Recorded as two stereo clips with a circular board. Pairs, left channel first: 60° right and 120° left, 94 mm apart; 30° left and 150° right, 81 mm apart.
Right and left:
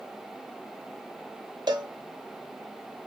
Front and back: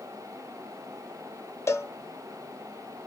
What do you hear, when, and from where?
1.7 s a cowbell: 80° left, 0.6 m